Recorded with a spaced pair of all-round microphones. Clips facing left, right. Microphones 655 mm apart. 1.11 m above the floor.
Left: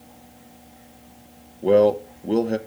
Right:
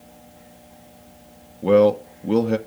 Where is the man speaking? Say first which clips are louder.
Right 1 dB; 35° right (ahead or behind), 0.6 m.